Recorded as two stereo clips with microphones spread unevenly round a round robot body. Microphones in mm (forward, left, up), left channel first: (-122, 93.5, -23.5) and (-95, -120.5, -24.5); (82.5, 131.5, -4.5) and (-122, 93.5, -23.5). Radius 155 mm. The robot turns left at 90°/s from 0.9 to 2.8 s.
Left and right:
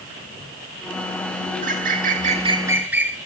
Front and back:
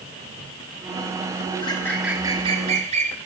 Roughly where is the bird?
Ahead right.